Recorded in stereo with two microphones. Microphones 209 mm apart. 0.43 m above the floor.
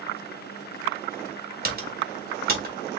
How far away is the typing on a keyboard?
About 1.4 m.